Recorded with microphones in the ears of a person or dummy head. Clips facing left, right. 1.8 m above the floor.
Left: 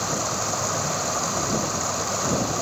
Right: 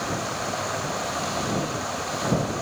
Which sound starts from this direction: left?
Running water, at 0.0 s.